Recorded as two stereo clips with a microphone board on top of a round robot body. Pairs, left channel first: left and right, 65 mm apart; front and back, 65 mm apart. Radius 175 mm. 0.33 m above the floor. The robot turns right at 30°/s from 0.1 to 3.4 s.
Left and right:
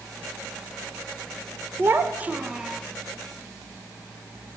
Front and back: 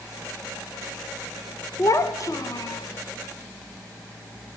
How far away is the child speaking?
About 1.2 m.